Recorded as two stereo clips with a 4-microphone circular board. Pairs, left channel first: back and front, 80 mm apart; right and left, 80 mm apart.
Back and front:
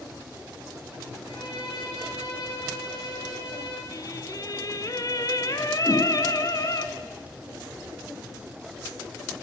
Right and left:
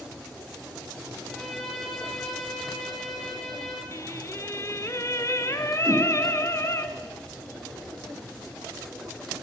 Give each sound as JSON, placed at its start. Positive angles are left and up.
{"t": 1.2, "sound": "a violin", "azimuth_deg": 180, "distance_m": 9.5}
{"t": 3.9, "sound": "singing", "azimuth_deg": -140, "distance_m": 1.5}
{"t": 5.8, "sound": "a whoosh", "azimuth_deg": 135, "distance_m": 8.0}